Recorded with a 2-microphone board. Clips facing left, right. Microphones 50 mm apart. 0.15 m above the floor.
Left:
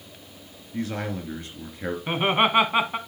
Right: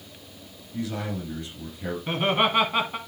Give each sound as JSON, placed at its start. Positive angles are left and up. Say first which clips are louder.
{"t": 0.7, "sound": "a man speaking", "louder": "left 1 dB", "side_deg": 40, "distance_m": 2.5}
{"t": 2.1, "sound": "laughter", "louder": "left 2 dB", "side_deg": 20, "distance_m": 1.0}